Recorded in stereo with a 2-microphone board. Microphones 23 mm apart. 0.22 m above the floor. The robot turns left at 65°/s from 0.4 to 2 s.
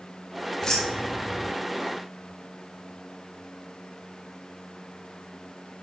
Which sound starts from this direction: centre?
Keys jangling, at 0.6 s.